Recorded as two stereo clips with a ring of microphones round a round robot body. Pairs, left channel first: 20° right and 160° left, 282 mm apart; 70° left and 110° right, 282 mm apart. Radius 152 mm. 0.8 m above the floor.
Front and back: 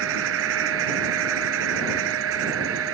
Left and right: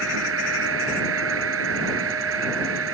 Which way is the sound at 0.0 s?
160° right.